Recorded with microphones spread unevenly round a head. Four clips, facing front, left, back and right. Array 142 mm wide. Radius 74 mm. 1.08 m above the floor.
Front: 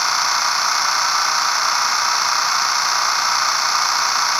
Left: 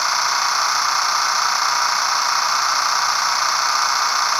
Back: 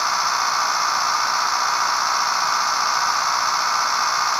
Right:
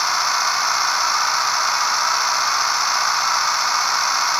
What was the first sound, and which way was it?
Only background noise.